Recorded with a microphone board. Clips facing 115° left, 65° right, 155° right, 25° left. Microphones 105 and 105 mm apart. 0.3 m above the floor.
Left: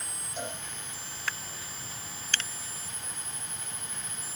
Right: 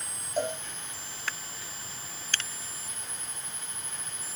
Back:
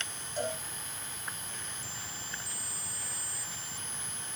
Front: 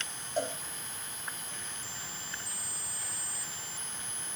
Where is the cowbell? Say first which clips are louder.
Right 8 dB, front 1 dB; 20° right, 9 m.